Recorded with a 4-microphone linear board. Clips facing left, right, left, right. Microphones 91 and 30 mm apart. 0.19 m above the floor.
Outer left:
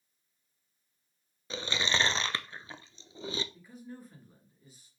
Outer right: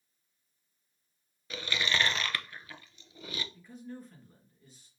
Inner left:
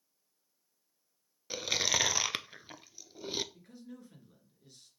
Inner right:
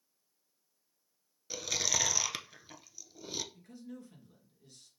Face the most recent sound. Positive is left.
turn(degrees=10)  # may be behind; listen again after turning